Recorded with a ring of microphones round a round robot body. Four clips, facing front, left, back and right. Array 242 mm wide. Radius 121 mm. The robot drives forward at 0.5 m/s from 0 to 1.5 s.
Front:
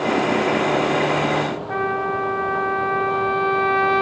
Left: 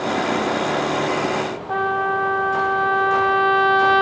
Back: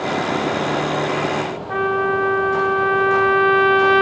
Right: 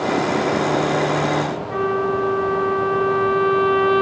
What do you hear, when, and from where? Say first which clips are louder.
1.7 s a trumpet: left 1 dB, back 6 dB; 65° left, 3 m